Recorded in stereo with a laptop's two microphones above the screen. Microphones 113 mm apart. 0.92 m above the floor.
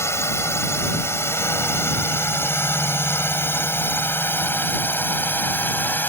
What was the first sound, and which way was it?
A drone, 25° left (ahead or behind).